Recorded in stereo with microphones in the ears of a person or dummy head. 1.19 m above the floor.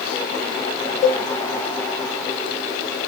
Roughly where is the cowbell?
Centre.